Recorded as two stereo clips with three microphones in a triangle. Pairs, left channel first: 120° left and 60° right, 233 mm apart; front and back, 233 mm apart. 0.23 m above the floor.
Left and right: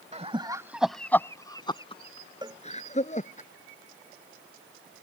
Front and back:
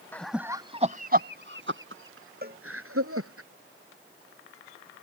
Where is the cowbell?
130° right.